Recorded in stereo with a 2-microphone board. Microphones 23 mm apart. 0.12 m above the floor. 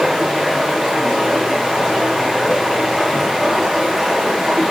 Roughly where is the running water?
Centre.